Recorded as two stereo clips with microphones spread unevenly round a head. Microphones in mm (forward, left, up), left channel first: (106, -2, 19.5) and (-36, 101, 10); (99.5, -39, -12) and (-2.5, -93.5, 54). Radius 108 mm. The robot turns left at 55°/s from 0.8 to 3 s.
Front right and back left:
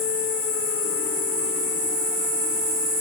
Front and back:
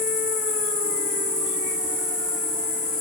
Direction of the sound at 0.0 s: 105° right.